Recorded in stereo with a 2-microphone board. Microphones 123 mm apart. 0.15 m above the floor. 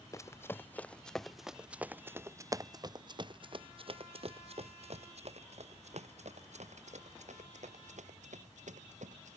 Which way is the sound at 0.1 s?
25° left (ahead or behind).